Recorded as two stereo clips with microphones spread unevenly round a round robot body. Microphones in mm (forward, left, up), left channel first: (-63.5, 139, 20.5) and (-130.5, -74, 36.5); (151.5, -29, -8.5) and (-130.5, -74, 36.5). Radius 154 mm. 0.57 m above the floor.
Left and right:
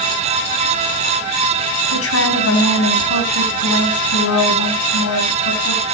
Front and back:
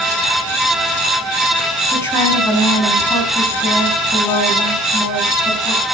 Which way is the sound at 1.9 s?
90° left.